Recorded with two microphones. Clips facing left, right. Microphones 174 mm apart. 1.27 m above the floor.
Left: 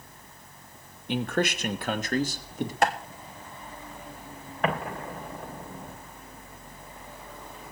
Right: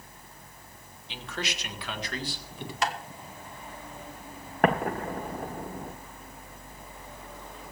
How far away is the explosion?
About 1.6 m.